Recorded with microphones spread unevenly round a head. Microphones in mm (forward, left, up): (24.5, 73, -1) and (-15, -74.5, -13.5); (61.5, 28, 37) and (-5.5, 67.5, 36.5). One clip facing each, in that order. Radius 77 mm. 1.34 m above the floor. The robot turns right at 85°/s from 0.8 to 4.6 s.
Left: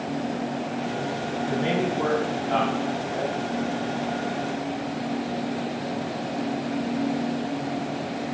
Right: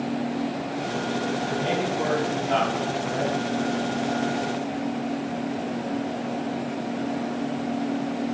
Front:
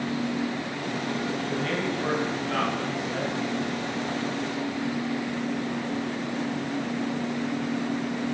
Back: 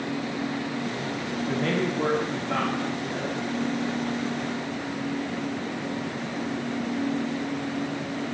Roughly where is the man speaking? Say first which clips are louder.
Left 1 dB, back 2 dB; behind left.